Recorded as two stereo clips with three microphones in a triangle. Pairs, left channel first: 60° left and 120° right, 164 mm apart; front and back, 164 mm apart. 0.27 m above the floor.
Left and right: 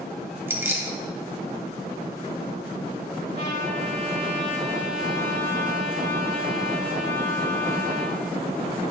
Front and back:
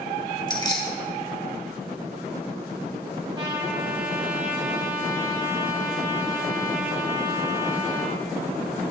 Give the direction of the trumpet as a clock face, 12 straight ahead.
4 o'clock.